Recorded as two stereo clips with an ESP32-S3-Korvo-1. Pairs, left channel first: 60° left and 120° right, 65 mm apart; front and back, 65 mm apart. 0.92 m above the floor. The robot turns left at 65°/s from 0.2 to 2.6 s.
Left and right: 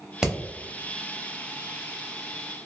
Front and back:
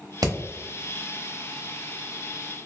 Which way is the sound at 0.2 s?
160° left.